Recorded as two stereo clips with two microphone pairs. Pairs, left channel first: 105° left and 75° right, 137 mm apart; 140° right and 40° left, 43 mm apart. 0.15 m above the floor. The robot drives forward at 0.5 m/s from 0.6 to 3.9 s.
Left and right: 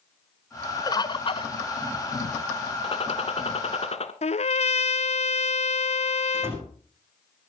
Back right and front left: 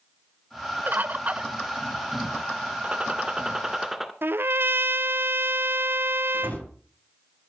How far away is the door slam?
About 6.5 m.